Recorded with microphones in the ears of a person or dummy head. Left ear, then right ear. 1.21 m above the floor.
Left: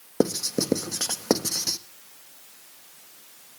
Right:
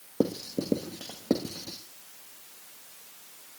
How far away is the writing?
About 1.1 m.